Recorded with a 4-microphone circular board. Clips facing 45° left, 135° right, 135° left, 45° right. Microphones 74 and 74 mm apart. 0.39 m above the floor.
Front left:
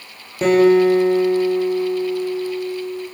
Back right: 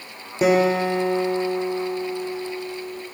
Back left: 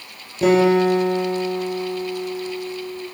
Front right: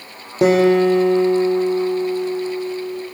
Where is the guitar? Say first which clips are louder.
Front left 6 dB, front right 2 dB; 55° right, 7 m.